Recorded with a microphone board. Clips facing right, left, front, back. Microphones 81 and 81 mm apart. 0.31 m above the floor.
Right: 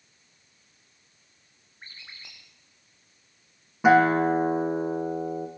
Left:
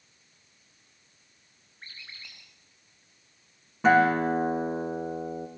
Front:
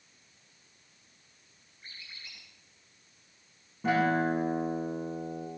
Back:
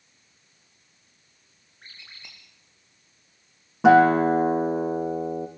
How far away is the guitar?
About 3 m.